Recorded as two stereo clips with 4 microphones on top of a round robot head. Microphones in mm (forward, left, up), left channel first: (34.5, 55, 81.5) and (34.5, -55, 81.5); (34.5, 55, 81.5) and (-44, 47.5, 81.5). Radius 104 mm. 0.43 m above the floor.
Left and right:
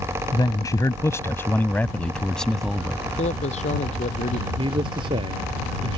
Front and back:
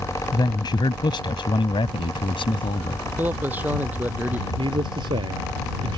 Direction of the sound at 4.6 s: 140° right.